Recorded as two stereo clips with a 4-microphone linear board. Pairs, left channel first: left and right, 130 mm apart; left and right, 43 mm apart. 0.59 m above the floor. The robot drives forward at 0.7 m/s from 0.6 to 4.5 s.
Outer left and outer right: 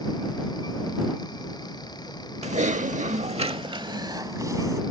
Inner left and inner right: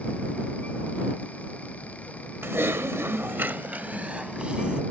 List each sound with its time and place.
2.4 s typing on a keyboard: 60° right (ahead or behind); by 4.8 s 25° right (ahead or behind)